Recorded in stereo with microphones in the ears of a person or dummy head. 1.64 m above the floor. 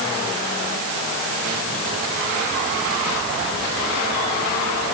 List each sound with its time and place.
Only background noise.